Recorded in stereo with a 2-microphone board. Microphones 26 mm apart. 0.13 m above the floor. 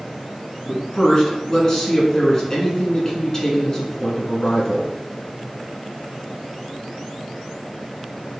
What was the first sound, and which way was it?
A man speaking, 20° left (ahead or behind).